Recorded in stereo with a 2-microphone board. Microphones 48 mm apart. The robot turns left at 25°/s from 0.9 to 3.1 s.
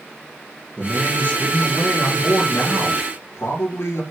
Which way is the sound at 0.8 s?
155° left.